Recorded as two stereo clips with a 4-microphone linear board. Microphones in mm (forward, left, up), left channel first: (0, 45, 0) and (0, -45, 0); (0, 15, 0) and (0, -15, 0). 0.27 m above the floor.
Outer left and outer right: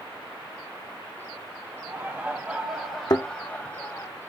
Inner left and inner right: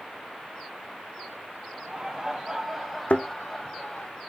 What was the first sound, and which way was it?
Laughter, 30° right (ahead or behind).